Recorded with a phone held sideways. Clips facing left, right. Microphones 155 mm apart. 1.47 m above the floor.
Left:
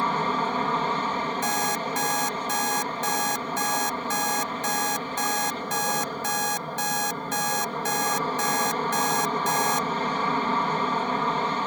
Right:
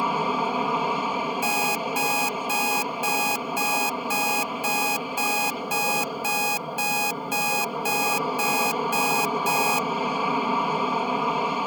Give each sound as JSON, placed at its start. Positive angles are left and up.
{"t": 0.0, "sound": "an aircraft", "side_deg": -10}
{"t": 1.4, "sound": "an alarm clock", "side_deg": -10}